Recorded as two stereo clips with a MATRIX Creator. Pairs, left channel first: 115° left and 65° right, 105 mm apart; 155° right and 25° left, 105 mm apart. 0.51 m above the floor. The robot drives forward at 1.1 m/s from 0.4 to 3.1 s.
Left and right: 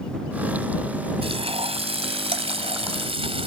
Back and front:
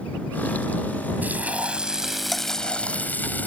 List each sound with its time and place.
1.2 s frying: 50° right; by 3.5 s 85° right